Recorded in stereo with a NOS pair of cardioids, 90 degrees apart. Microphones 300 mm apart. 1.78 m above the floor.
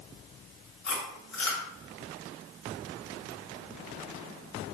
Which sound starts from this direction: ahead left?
Chewing, at 0.8 s.